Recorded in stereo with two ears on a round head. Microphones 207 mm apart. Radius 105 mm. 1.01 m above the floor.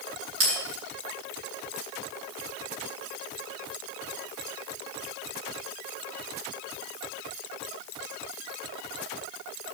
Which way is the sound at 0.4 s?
70° right (ahead or behind).